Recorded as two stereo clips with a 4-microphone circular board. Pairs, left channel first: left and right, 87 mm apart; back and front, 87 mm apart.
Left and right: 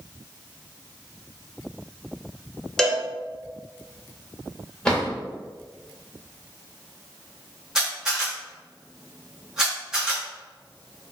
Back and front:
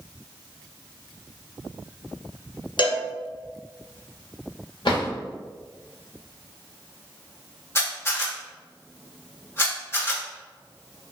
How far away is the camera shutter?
About 1.3 m.